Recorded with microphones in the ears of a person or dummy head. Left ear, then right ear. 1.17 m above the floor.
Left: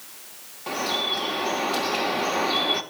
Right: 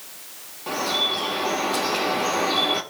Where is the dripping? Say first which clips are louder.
Right 2 dB; 10° left (ahead or behind), 1.9 m.